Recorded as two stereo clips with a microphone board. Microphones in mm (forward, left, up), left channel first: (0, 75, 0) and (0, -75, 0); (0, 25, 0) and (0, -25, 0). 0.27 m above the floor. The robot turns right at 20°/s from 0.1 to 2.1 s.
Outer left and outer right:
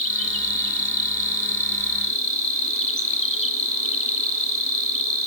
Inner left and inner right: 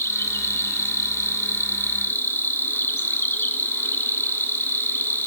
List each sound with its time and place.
0.0 s an insect: 85° left, 0.9 m; by 5.3 s 125° left, 0.9 m